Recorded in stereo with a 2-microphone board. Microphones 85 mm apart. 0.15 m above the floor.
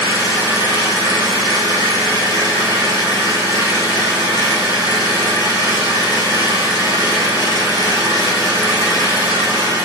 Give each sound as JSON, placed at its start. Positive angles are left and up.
{"t": 0.0, "sound": "an engine running", "side_deg": 55, "distance_m": 1.1}